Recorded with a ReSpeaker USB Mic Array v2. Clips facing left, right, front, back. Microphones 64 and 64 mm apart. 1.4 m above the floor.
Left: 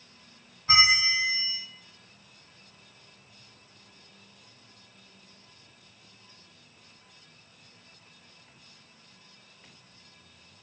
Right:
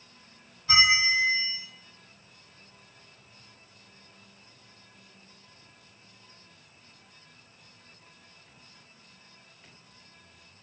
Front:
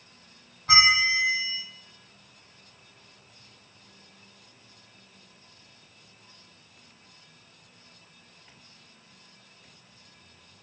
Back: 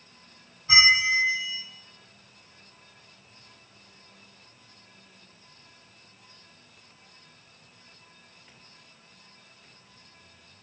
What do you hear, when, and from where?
0.7 s a bell: 30° left, 0.5 m